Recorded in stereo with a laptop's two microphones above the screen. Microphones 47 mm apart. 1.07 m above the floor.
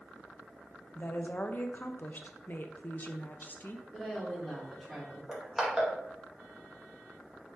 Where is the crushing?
10° right (ahead or behind), 1.7 m.